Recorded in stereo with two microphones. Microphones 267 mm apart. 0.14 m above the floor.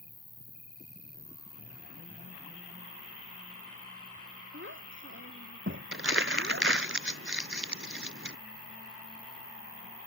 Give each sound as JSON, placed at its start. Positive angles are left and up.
{"t": 0.0, "sound": "an insect", "side_deg": 25}
{"t": 4.5, "sound": "a child speaking", "side_deg": -50}
{"t": 5.9, "sound": "crumpling", "side_deg": -50}